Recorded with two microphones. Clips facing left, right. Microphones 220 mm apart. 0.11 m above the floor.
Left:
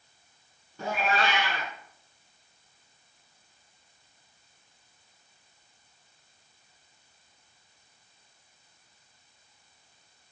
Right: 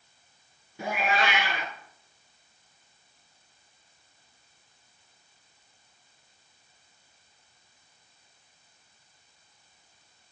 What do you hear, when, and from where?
0.8 s a cat meowing: 15° right (ahead or behind), 0.6 m